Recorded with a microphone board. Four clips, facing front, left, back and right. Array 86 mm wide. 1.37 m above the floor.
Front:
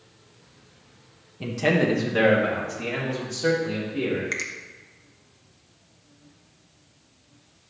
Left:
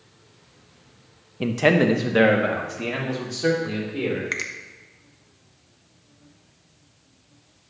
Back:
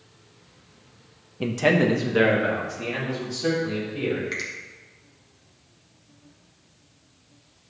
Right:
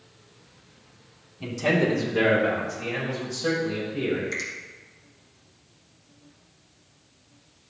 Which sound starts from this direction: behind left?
A man speaking, at 1.4 s.